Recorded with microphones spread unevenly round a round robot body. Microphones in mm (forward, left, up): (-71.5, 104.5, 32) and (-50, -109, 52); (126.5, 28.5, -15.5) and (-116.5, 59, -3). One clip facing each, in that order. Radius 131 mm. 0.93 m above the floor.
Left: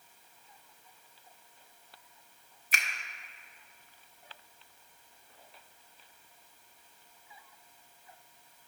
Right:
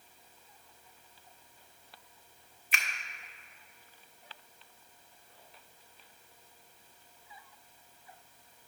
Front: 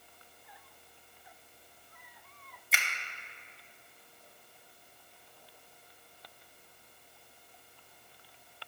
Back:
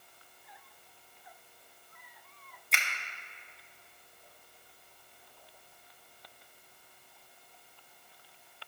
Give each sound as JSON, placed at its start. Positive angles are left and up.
{"t": 2.7, "sound": "a finger snap", "azimuth_deg": 75, "distance_m": 0.9}